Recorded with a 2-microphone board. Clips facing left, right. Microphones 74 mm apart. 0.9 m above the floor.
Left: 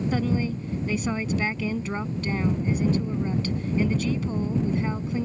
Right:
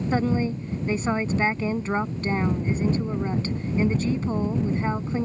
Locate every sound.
0.1 s a woman speaking: 30° right (ahead or behind)